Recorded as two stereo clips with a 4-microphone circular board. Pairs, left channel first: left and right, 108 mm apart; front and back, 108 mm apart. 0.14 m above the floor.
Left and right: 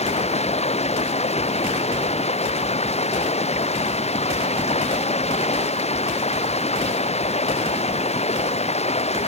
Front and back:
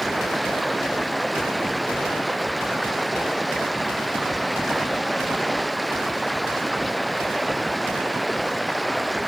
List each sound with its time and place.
0.0 s running water: 90° left